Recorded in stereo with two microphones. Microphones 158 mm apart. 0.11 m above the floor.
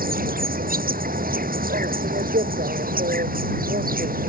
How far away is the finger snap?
I don't hear a finger snap.